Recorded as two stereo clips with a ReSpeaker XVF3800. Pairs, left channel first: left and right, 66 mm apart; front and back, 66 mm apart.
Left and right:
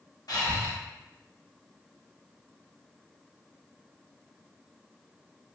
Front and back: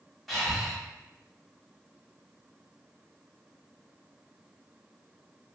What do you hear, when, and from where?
0.3 s breathing: 85° left, 1.0 m